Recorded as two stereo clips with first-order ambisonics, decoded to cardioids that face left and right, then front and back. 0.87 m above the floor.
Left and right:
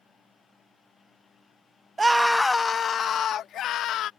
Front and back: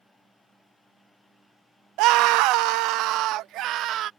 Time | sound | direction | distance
2.0 | a scream | 170° right | ?